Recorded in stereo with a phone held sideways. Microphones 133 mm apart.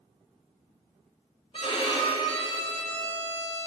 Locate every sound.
1.5 s a violin: 40° left (ahead or behind), 0.9 m